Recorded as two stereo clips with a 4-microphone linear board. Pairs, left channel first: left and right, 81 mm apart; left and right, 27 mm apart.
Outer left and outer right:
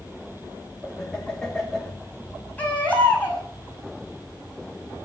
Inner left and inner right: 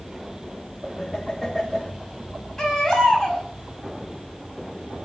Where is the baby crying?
15° left (ahead or behind), 6 m.